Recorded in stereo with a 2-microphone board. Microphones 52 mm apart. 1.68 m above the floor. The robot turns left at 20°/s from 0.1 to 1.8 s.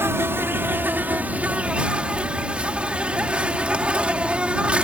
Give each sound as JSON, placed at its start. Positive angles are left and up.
{"t": 0.0, "sound": "an insect", "azimuth_deg": -125}